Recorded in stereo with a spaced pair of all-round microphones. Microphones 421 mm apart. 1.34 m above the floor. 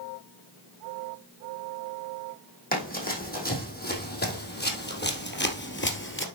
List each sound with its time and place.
2.7 s running footsteps: 20° left (ahead or behind), 4 m; by 6.2 s 25° left (ahead or behind), 1.8 m